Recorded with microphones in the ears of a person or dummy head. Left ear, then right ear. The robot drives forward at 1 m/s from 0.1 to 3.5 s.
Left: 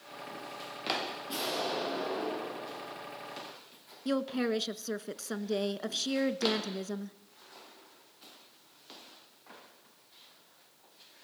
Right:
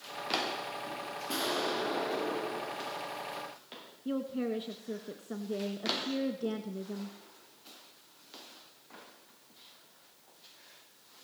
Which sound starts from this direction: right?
An explosion, at 1.3 s.